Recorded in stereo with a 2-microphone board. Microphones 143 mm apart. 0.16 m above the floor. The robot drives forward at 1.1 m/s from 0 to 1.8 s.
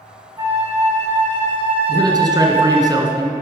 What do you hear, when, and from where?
0.4 s a flute: 25° right (ahead or behind), 3.5 m; by 2.9 s 40° right (ahead or behind), 2 m
1.9 s a man speaking: 30° right (ahead or behind), 1.9 m